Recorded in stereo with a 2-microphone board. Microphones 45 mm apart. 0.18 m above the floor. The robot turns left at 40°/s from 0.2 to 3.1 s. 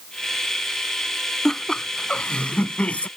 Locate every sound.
1.4 s laughter: 165° left; by 3.1 s 95° left